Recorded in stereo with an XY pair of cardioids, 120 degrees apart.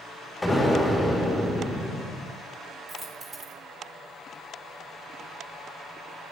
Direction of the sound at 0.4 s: 10° left.